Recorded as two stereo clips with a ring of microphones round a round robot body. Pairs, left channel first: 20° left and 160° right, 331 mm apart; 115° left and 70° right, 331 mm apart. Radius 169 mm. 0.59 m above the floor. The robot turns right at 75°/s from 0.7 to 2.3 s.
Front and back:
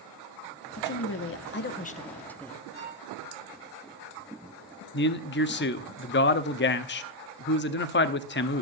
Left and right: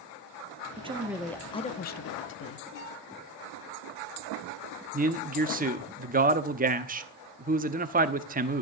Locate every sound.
0.8 s a woman speaking: 10° right, 0.8 m; by 2.6 s 105° left, 0.8 m
2.7 s a violin: 150° left, 8.5 m
4.9 s a man speaking: 15° right, 0.9 m